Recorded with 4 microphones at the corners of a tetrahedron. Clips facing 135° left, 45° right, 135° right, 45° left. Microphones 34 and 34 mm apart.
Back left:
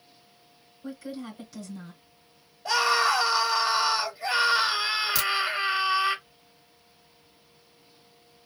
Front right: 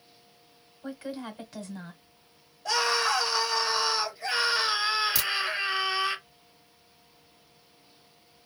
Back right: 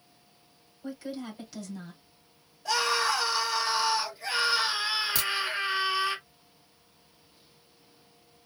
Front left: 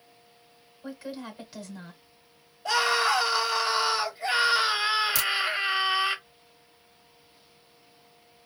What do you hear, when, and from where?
0.8 s a woman speaking: 25° right, 1.3 m
2.6 s a scream: 75° left, 0.9 m
5.2 s a crack: 120° right, 1.7 m